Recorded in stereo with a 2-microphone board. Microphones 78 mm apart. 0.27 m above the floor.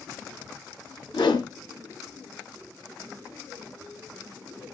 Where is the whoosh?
80° left, 0.6 m.